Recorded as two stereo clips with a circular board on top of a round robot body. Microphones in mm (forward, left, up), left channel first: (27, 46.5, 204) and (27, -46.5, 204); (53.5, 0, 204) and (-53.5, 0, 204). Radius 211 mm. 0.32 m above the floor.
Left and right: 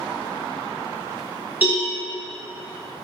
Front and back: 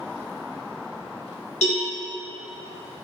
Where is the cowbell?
20° right, 1.1 m.